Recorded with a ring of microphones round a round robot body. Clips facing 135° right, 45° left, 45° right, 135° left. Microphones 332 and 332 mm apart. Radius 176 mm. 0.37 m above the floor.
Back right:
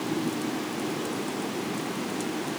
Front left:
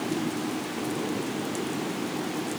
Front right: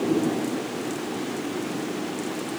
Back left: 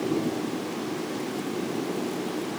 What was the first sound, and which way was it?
Only background noise.